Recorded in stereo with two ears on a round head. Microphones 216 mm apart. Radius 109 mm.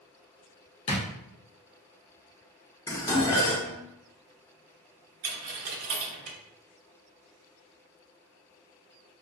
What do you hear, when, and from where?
0.9 s a drawer: 25° left (ahead or behind), 0.6 m
2.9 s dishes clattering: 15° left (ahead or behind), 0.6 m
5.2 s a dropped coin: 65° right (ahead or behind), 0.6 m